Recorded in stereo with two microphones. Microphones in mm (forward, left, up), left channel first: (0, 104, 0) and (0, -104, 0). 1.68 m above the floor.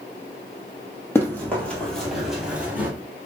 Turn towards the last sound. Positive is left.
turn(degrees=-10)  # may be behind; listen again after turning